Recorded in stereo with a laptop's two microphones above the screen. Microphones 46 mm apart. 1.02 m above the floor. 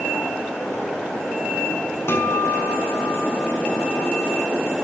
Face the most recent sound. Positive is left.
turn(degrees=60)  # may be behind; listen again after turning